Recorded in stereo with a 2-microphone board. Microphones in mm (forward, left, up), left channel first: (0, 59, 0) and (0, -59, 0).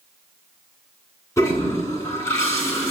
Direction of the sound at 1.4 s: 25° left (ahead or behind).